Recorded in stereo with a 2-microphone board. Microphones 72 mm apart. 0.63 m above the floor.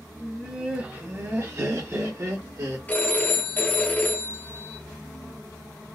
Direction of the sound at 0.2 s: 5° right (ahead or behind).